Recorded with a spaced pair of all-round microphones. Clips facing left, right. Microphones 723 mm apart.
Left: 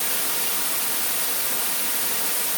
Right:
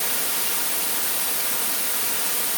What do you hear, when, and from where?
Only background noise.